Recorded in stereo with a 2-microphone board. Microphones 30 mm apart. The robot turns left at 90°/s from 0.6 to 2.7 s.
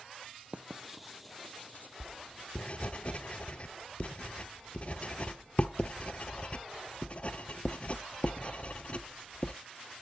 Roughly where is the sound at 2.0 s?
Centre.